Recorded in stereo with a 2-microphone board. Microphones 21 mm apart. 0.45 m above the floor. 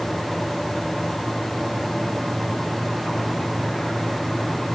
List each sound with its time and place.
Only background noise.